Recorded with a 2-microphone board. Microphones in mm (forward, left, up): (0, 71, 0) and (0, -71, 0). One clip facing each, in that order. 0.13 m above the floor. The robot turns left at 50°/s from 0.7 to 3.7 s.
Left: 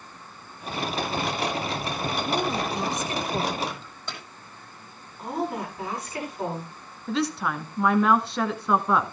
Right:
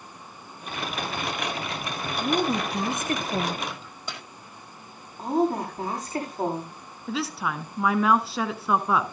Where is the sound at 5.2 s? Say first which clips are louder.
Right 6 dB; 40° right (ahead or behind), 7.5 m.